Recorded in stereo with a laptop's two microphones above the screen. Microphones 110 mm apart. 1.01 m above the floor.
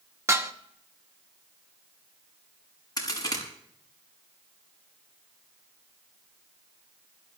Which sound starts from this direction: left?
A crack, at 3.0 s.